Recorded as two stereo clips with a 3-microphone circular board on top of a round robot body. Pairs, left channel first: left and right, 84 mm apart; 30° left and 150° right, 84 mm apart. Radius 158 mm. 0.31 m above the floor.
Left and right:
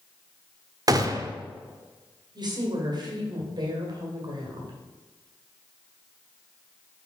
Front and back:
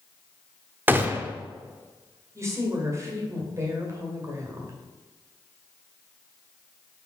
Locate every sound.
0.9 s a gunshot: 90° right, 0.9 m
2.4 s a woman speaking: 100° right, 2 m